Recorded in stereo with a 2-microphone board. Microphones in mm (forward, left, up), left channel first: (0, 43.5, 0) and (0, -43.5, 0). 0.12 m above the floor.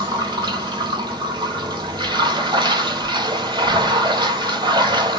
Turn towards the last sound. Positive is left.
turn(degrees=-60)  # may be behind; listen again after turning